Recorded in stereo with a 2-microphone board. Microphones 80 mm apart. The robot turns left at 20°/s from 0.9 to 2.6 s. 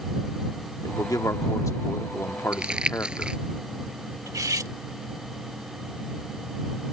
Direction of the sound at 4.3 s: 45° right (ahead or behind).